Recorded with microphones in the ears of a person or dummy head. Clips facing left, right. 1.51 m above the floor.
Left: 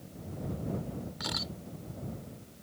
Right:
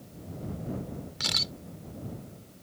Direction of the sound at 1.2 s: 35° right (ahead or behind).